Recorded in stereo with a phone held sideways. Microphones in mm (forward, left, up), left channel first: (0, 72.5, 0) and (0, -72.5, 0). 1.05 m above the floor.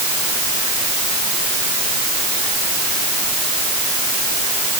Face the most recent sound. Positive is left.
No sound to turn to.